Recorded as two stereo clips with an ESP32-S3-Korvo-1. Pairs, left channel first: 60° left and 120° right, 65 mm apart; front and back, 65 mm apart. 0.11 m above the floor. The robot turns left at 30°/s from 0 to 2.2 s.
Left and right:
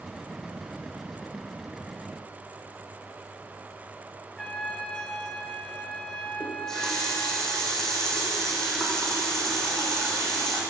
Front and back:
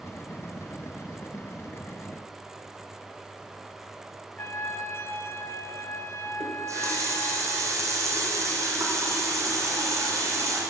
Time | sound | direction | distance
4.4 | a trumpet | 15° right | 0.8 m
6.4 | a running tap | 140° left | 3.5 m